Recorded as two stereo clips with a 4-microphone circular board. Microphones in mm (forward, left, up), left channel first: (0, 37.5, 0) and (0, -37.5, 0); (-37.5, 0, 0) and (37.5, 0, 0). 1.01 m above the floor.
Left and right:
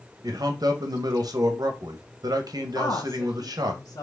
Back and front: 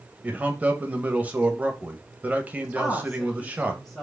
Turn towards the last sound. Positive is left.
turn(degrees=90)